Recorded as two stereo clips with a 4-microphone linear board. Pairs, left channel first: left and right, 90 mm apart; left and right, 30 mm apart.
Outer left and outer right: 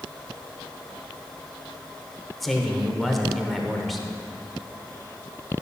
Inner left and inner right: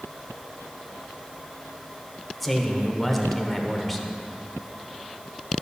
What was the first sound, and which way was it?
A man speaking, centre (ahead or behind).